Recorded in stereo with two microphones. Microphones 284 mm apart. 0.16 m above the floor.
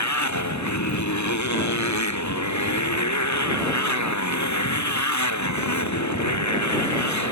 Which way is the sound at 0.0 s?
75° left (ahead or behind).